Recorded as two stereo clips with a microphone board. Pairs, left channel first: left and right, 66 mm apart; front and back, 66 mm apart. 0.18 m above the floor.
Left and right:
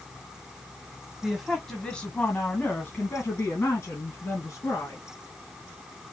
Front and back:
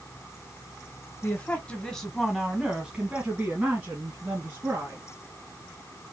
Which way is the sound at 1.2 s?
10° right.